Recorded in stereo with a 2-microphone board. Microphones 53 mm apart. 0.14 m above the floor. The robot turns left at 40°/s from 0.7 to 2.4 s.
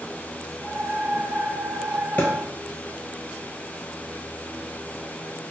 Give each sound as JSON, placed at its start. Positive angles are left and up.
{"t": 2.2, "sound": "a thud", "side_deg": 35, "distance_m": 1.0}